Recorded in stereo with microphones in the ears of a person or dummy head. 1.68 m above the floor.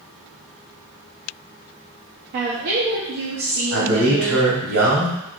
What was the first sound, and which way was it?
A woman speaking, 55° right (ahead or behind).